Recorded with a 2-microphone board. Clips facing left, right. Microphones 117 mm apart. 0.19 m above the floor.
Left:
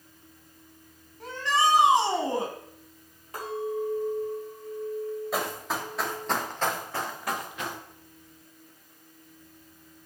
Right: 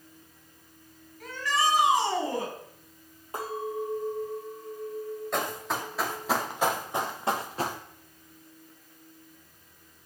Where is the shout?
30° left (ahead or behind), 1.3 m.